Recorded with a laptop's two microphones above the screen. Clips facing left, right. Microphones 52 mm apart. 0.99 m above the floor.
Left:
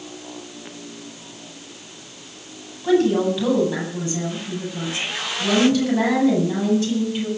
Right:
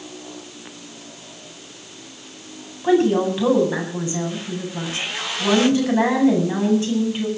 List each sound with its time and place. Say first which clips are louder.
2.8 s a woman speaking: right 1 dB; 25° right (ahead or behind), 9 m